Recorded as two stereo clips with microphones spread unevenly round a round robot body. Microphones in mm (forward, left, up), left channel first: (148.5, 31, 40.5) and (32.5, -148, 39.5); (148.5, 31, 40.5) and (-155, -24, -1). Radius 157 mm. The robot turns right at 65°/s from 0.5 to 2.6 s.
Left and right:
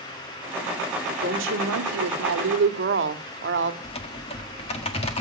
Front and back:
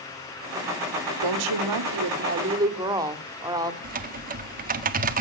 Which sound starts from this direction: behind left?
Typing on a keyboard, at 3.8 s.